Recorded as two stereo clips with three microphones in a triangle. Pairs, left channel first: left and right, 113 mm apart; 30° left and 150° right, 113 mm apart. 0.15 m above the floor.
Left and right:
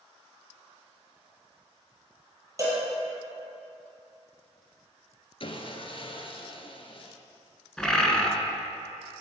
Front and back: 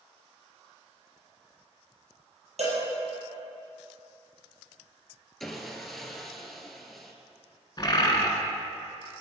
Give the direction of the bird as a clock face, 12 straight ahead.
12 o'clock.